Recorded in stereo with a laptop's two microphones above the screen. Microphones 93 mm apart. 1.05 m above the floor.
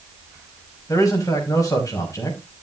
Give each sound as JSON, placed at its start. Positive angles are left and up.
{"t": 0.9, "sound": "a man speaking", "side_deg": 40, "distance_m": 5.0}